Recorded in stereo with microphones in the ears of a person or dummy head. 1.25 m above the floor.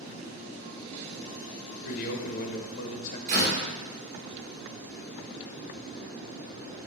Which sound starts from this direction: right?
A door slam, at 3.3 s.